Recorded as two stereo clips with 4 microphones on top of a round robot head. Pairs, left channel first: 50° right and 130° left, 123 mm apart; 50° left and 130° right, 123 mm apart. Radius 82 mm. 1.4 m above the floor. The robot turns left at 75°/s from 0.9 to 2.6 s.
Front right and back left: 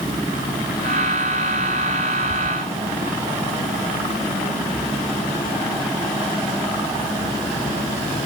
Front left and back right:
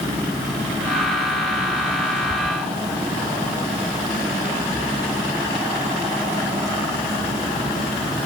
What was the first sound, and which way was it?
Only background noise.